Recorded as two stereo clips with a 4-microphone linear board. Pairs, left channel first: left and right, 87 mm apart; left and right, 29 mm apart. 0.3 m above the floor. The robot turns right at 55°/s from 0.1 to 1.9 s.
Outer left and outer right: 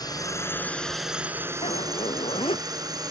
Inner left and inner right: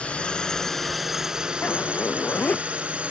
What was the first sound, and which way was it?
A drone, 130° left.